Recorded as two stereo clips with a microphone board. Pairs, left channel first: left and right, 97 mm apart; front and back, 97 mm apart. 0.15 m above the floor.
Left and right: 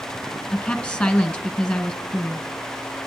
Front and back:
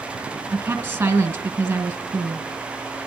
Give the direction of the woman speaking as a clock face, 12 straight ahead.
7 o'clock.